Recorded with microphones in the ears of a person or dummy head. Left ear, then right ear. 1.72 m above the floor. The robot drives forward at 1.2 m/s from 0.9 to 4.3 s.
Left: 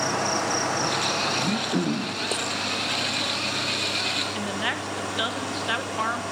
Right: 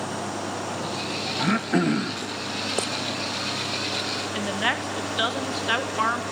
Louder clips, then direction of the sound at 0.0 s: Left 6 dB; 65° left (ahead or behind).